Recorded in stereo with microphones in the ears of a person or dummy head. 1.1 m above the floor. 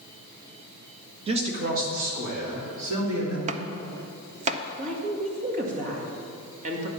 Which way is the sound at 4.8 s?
45° right (ahead or behind).